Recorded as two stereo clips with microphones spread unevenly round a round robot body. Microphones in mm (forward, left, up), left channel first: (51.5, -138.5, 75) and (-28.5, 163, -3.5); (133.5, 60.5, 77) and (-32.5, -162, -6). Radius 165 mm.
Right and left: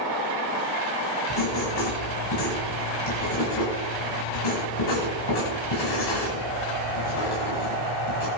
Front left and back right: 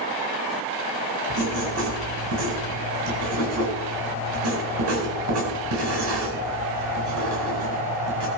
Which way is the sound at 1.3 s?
100° right.